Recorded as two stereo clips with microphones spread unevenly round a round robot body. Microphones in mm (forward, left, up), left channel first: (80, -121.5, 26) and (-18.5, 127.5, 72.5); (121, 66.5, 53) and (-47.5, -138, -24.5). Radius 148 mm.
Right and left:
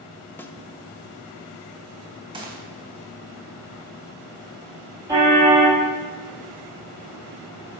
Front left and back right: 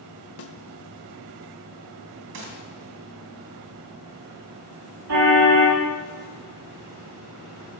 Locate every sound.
0.4 s a snare drum: 10° left, 1.5 m
2.3 s a gunshot: 175° right, 3 m
5.1 s a car horn: 170° right, 8.5 m